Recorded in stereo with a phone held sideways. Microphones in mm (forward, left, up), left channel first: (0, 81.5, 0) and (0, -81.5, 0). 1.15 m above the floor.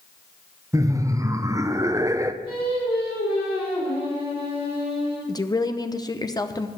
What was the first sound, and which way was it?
Laughter, 20° right (ahead or behind).